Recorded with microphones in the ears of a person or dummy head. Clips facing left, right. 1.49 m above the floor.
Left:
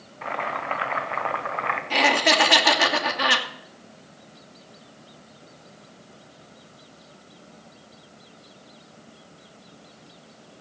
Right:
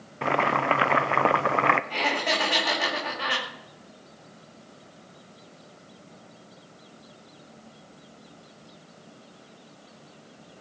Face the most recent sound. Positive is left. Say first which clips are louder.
# left 6 dB
turn(degrees=80)